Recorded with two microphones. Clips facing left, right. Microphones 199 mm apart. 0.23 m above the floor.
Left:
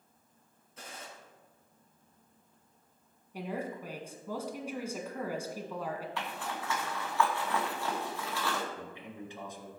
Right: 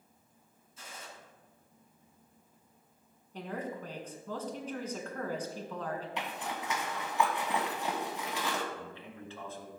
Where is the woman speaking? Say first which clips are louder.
Left 1 dB; 10° left (ahead or behind), 1.8 m.